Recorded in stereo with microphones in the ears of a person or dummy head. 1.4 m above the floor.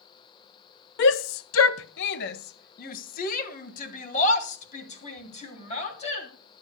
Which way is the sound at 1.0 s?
65° left (ahead or behind).